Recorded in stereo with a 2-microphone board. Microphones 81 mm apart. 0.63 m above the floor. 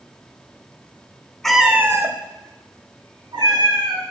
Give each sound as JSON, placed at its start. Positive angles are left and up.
{"t": 1.4, "sound": "a cat meowing", "side_deg": 5, "distance_m": 0.6}